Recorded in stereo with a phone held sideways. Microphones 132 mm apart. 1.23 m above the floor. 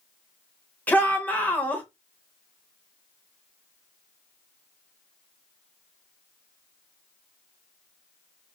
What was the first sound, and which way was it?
A shout, 10° left (ahead or behind).